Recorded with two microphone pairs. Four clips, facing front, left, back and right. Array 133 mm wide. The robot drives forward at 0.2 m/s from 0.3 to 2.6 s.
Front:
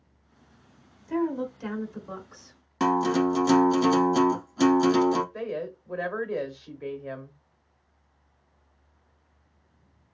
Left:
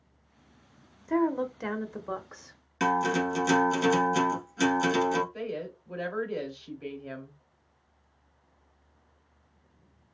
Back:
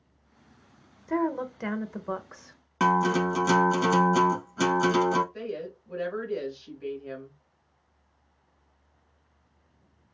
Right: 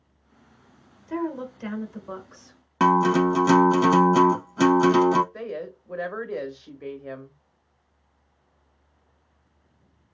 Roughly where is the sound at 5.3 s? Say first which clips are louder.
Right 2 dB, front 3 dB; ahead right.